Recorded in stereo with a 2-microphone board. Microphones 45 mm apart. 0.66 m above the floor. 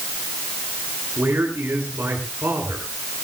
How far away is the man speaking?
About 9 m.